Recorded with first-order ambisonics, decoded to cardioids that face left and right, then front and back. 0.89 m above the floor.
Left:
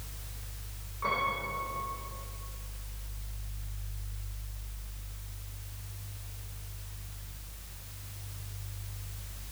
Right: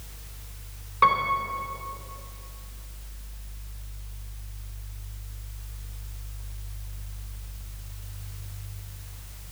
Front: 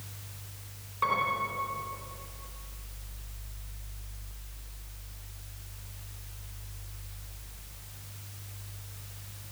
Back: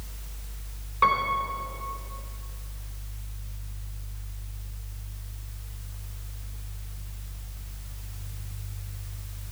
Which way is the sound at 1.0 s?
115° right.